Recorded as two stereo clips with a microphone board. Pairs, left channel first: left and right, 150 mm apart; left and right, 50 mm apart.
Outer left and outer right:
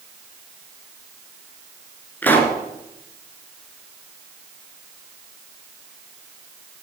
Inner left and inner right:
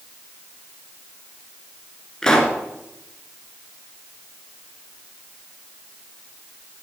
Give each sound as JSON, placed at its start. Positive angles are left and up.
{"t": 2.2, "sound": "a pop", "side_deg": 10, "distance_m": 1.2}